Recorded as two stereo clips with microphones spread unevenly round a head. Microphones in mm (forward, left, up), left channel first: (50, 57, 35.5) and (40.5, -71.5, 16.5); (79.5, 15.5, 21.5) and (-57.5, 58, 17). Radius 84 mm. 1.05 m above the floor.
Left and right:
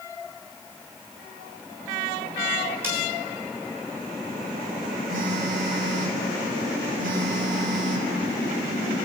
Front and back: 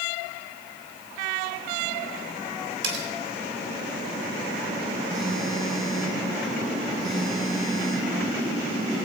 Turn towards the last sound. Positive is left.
turn(degrees=-105)